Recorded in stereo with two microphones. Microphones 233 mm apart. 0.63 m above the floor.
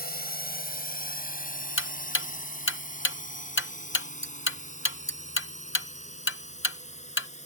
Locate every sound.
0.0 s a drone: 40° left (ahead or behind); by 7.5 s 30° left (ahead or behind)
1.8 s ticking: 60° left (ahead or behind)